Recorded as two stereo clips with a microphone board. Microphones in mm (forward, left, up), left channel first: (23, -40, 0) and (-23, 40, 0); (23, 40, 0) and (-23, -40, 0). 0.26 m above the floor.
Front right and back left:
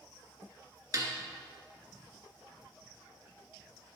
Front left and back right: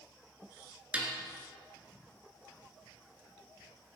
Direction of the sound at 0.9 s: 165° left.